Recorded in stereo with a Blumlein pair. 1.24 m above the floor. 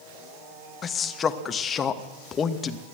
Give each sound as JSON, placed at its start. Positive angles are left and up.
{"t": 0.8, "sound": "a man speaking", "azimuth_deg": 20, "distance_m": 1.1}